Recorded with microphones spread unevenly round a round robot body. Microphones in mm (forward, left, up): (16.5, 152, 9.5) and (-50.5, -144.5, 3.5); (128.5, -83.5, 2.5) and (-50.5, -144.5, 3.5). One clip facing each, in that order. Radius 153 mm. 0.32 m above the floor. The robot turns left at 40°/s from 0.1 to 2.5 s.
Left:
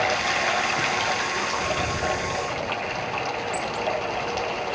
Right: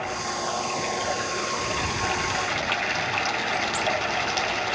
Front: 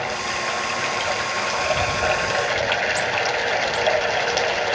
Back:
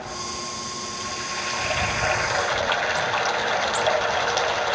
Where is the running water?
45° left; by 4.8 s 50° right.